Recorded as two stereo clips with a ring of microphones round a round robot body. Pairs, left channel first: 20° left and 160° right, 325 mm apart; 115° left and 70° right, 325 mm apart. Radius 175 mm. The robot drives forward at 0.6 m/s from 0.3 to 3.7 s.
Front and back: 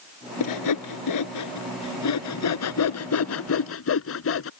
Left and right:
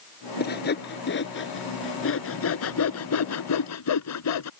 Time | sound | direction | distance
0.4 | sawing | 50° left | ?